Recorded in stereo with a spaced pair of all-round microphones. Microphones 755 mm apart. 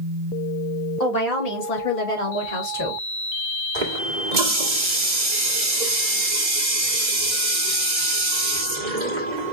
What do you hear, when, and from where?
1.0 s a woman speaking: 65° left (ahead or behind), 2.5 m; by 3.0 s 25° left (ahead or behind), 2.5 m
3.8 s a running tap: 70° right (ahead or behind), 1.7 m